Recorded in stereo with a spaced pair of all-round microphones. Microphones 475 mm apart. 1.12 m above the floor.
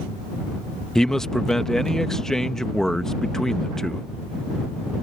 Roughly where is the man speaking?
Centre.